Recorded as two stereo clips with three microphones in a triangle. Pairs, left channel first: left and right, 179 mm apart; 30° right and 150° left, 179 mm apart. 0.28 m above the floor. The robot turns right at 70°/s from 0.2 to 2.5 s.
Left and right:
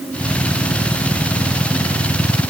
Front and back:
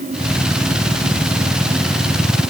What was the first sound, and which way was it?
Only background noise.